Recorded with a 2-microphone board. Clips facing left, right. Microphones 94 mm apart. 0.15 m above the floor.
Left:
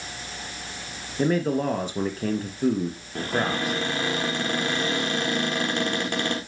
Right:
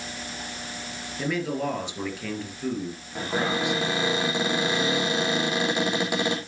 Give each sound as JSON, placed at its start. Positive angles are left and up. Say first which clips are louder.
{"t": 1.2, "sound": "a man speaking", "louder": "left 5 dB", "side_deg": 40, "distance_m": 2.5}
{"t": 3.1, "sound": "a cupboard door", "louder": "even", "side_deg": -10, "distance_m": 4.5}